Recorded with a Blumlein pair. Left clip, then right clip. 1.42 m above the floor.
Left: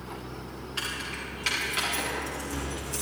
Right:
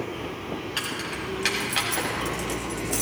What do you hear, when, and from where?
0.8 s keys jangling: 50° right, 6.5 m; by 3.0 s 30° right, 4.5 m